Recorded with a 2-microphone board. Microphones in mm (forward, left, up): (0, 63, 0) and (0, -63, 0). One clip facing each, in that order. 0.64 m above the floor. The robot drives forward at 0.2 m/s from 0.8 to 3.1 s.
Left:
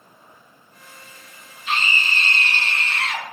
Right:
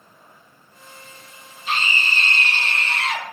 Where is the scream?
35° right (ahead or behind), 1.4 m; by 3.3 s 30° right (ahead or behind), 1.5 m.